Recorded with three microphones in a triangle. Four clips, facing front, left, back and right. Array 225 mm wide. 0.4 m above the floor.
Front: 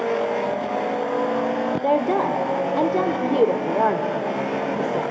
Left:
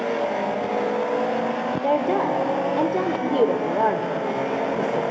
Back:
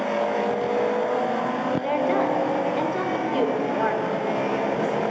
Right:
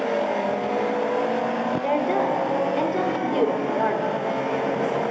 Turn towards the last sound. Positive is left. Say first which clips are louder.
# left 3 dB, front 3 dB
turn(degrees=25)